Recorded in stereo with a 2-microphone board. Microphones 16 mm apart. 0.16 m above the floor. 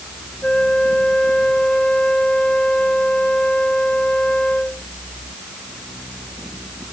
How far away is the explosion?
I don't hear an explosion.